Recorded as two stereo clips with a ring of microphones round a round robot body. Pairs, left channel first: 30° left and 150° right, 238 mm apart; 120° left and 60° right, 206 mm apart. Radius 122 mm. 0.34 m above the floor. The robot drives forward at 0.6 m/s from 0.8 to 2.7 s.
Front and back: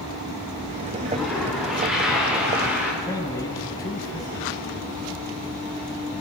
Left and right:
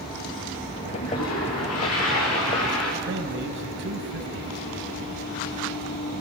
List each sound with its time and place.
1.0 s a toilet flushing: 120° left, 8.5 m; by 2.9 s 125° left, 9 m
3.0 s a man speaking: 45° right, 3 m